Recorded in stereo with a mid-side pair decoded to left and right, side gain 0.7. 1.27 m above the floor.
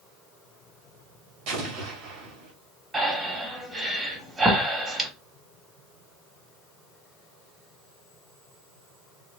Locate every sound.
1.5 s an explosion: 70° right, 1.7 m
2.9 s breathing: 15° right, 1.6 m